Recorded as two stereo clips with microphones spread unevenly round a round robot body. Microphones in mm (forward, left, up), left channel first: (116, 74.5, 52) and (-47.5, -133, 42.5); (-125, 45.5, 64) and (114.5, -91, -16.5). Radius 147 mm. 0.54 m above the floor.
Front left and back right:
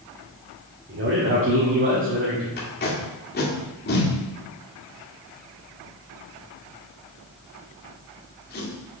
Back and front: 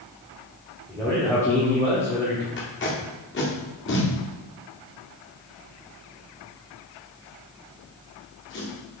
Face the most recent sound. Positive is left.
turn(degrees=95)